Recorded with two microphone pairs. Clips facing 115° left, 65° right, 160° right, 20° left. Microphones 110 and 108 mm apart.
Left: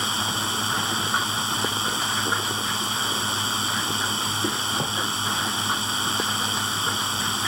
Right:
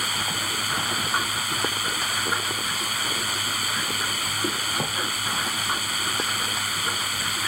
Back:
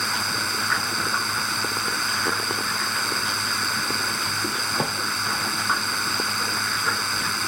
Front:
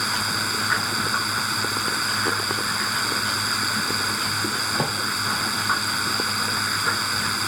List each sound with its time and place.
0.0 s a drone: 105° left